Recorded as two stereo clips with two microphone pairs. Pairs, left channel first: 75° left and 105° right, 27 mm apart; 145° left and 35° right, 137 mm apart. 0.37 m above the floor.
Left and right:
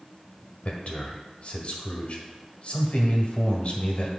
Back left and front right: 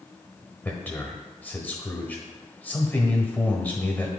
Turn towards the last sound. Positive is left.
turn(degrees=70)